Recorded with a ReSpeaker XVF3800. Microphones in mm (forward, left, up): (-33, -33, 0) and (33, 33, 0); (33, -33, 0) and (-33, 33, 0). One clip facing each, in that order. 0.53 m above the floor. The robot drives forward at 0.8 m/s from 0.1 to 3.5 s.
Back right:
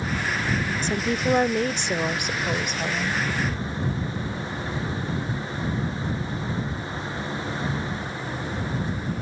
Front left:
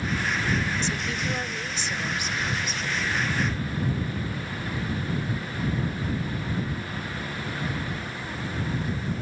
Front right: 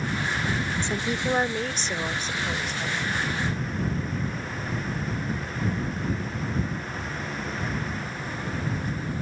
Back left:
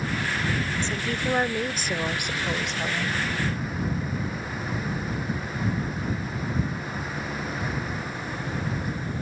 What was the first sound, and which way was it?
A woman speaking, 110° right.